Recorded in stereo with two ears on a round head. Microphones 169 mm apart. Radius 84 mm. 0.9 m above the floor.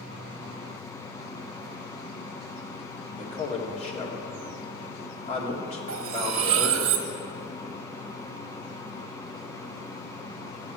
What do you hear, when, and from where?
3.2 s a man speaking: 35° left (ahead or behind), 2 m
5.9 s cutlery clinking: 75° right (ahead or behind), 1.2 m